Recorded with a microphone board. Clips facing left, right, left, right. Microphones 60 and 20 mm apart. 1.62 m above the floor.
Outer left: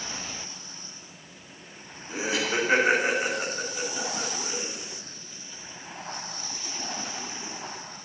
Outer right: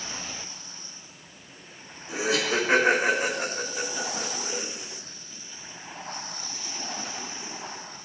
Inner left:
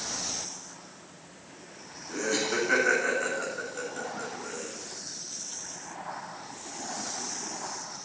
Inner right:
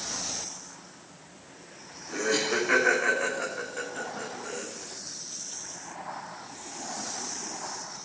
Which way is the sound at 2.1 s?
80° right.